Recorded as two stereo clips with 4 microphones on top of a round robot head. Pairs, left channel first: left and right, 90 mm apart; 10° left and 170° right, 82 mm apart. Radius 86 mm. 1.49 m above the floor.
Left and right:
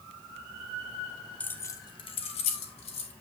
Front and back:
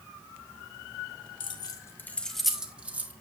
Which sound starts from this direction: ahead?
Keys jangling, at 1.4 s.